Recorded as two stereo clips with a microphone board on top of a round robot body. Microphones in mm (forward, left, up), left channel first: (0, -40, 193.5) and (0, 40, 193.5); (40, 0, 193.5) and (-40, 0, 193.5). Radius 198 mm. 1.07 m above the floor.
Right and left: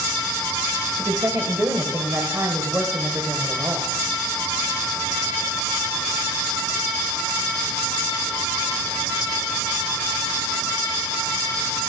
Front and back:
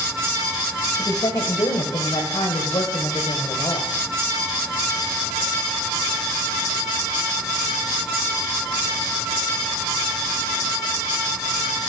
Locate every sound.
1.0 s a woman speaking: 35° left, 1.4 m